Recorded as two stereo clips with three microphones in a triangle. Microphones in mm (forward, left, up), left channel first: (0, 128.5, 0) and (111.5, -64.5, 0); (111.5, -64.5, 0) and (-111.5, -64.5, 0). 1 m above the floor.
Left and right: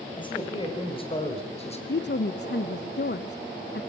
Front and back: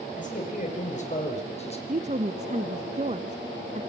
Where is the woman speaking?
130° left, 0.8 m.